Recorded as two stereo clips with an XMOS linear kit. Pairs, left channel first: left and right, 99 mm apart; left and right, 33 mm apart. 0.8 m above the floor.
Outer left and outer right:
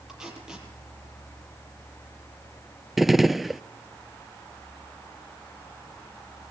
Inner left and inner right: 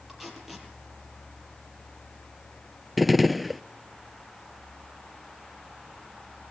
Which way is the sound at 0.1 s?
5° right (ahead or behind).